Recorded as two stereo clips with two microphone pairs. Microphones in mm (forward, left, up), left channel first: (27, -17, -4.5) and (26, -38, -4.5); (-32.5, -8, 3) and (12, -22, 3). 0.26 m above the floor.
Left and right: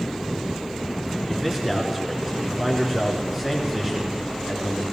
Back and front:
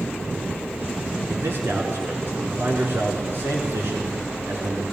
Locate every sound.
1.3 s a man speaking: 10° right, 4 m